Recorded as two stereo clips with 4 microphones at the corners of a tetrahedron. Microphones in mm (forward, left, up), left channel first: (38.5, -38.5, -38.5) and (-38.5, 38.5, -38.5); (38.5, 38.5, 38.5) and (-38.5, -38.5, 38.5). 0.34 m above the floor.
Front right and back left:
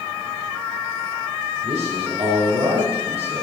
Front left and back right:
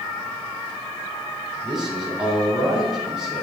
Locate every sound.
1.6 s a man speaking: 140° left, 3.5 m